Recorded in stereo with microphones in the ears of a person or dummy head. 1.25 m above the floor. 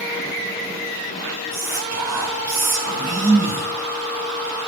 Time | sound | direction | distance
1.5 | whispering | 20° right (ahead or behind) | 5 m